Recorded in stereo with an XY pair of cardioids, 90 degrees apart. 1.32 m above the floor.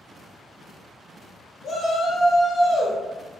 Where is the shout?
70° left, 0.9 m.